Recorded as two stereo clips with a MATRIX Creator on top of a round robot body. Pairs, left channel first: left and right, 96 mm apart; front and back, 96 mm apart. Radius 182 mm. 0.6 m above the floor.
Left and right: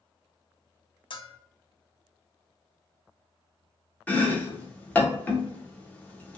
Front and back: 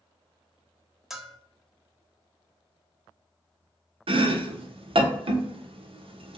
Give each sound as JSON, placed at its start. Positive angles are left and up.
{"t": 1.1, "sound": "a bell", "azimuth_deg": 95, "distance_m": 0.7}
{"t": 4.1, "sound": "chopping", "azimuth_deg": 165, "distance_m": 0.9}